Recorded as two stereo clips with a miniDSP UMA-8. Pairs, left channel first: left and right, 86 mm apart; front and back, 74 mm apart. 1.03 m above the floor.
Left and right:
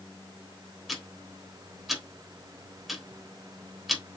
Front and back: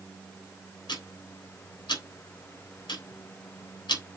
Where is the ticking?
Straight ahead, 3.5 m.